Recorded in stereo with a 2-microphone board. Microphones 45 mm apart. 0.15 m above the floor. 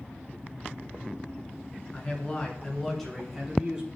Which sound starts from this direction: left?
A man speaking, at 1.9 s.